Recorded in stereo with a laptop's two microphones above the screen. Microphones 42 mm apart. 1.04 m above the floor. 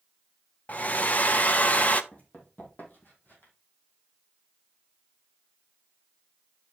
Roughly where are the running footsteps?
Left.